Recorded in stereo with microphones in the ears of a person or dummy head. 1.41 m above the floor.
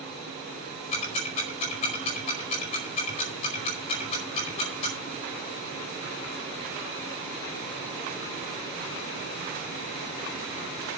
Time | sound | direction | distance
0.9 | ticking | 30° left (ahead or behind) | 4.5 m